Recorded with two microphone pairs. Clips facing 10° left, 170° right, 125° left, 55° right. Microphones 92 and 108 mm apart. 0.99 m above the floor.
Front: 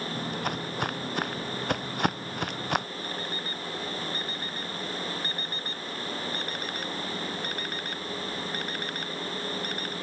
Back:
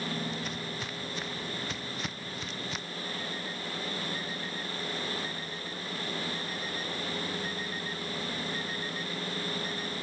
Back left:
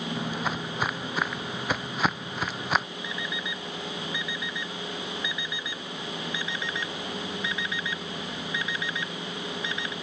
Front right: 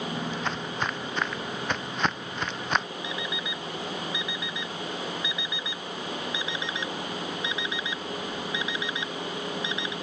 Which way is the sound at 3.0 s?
15° left.